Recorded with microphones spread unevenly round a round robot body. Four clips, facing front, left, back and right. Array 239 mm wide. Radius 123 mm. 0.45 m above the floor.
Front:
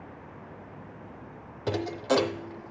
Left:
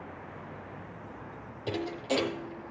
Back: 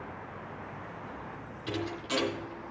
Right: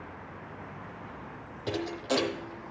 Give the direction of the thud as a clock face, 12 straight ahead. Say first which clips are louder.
Right 1 dB, front 8 dB; 12 o'clock.